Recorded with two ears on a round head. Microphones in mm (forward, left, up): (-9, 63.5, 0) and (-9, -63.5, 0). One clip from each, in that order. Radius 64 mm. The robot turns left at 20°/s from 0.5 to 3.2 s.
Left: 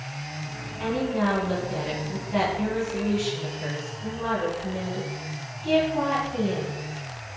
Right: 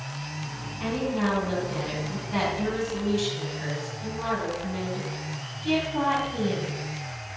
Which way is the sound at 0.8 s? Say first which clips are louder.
Left 2 dB; 15° left.